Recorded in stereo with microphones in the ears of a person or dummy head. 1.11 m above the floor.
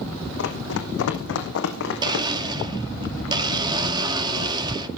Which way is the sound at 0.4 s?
75° left (ahead or behind).